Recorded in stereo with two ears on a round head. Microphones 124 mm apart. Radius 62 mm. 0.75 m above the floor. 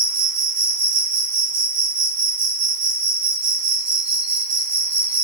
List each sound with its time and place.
0.0 s an insect: 10° right (ahead or behind), 1.3 m